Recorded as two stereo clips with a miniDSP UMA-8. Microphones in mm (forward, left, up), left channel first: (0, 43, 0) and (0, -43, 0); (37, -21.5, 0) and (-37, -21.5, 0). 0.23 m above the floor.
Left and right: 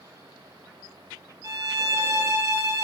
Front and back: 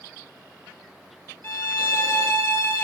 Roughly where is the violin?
Ahead right.